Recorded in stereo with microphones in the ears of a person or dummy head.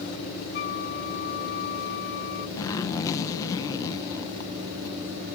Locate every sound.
0.5 s a flute: 50° left (ahead or behind)
2.6 s a zipper: 25° left (ahead or behind)